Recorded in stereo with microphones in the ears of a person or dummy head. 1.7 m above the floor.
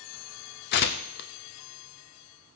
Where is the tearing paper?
45° left (ahead or behind), 0.5 m.